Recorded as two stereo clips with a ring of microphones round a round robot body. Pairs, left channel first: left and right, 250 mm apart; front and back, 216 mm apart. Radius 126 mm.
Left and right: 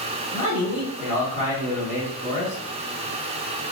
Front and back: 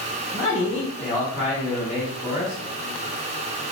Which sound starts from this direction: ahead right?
A man speaking, at 0.3 s.